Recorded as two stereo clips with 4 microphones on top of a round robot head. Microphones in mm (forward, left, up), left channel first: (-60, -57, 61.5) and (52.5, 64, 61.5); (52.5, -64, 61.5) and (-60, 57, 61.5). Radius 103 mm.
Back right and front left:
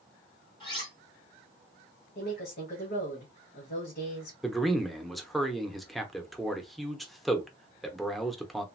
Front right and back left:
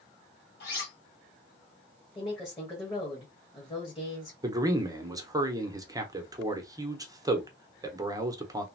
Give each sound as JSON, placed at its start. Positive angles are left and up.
{"t": 0.6, "sound": "cutlery clinking", "azimuth_deg": -70, "distance_m": 1.6}
{"t": 2.1, "sound": "a woman speaking", "azimuth_deg": -105, "distance_m": 1.4}
{"t": 4.4, "sound": "a man speaking", "azimuth_deg": 140, "distance_m": 0.8}